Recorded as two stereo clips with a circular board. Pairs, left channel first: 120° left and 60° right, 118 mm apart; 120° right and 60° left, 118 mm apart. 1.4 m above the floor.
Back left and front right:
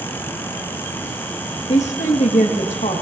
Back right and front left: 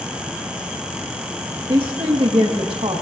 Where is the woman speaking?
105° left, 1.7 m.